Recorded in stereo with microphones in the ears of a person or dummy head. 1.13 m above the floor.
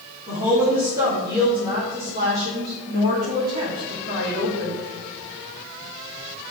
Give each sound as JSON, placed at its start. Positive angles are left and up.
{"t": 0.3, "sound": "a woman speaking", "side_deg": -20, "distance_m": 3.5}